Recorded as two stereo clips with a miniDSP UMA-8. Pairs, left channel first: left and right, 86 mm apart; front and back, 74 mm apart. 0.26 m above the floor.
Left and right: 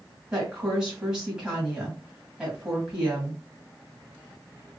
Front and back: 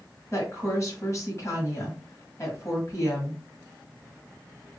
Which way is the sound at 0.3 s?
15° right.